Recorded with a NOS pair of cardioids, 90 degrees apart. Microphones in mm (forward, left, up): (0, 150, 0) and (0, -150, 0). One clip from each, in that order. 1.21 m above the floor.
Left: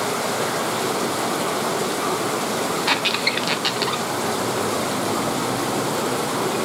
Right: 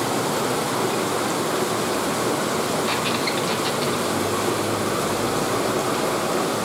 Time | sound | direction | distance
2.9 | a squeak | 50° left | 0.8 m